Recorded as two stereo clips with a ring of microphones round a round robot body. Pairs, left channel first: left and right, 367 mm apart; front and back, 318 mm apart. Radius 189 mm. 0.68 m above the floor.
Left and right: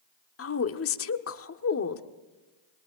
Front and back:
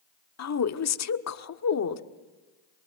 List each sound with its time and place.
0.4 s a woman speaking: 35° left, 1.5 m